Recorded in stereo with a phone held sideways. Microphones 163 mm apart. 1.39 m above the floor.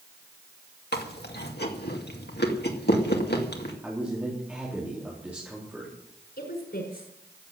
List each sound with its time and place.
0.9 s chewing: 85° left, 2 m
3.8 s a man speaking: 10° right (ahead or behind), 4 m
6.4 s a woman speaking: 75° left (ahead or behind), 5.5 m